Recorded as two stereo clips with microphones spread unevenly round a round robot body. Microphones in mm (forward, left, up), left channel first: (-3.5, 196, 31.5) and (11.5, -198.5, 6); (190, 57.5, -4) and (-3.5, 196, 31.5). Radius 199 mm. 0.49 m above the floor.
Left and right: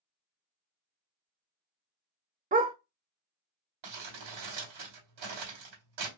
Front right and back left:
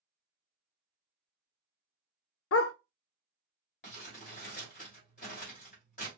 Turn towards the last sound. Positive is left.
turn(degrees=-90)